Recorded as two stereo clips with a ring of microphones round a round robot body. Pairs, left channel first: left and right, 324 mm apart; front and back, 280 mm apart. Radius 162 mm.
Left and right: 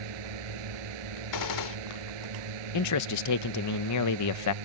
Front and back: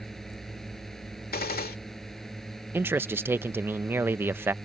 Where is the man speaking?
100° left.